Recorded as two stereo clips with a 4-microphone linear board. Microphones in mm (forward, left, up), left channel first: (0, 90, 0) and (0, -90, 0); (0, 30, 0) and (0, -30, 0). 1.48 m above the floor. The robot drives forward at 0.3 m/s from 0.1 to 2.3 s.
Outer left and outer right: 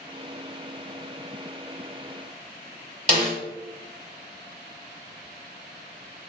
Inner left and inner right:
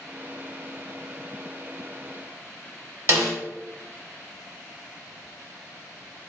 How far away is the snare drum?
About 1.4 m.